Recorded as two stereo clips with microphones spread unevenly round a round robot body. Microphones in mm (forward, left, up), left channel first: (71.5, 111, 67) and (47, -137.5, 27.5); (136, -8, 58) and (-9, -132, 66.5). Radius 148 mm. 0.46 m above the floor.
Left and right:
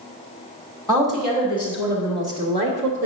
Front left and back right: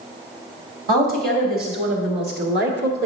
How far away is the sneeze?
No sneeze in this recording.